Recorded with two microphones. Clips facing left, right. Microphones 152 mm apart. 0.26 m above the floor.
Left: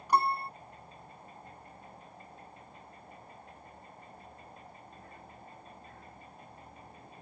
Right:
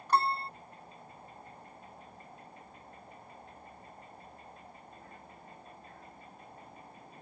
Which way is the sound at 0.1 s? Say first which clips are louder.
Left 1 dB; 10° left (ahead or behind).